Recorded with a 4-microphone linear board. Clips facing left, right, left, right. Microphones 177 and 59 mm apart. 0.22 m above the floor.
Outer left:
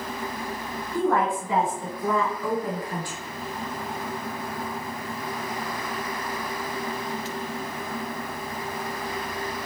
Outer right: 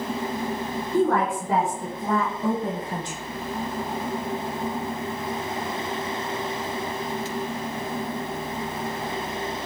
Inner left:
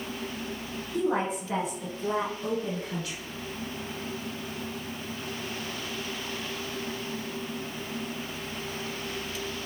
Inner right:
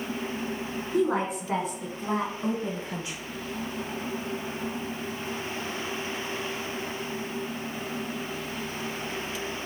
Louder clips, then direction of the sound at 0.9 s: Outer right 2 dB, inner right 2 dB; 55° right (ahead or behind).